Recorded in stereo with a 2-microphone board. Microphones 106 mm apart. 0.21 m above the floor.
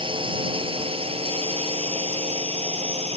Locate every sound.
0.0 s a drone: 55° right (ahead or behind); by 3.2 s 75° right (ahead or behind)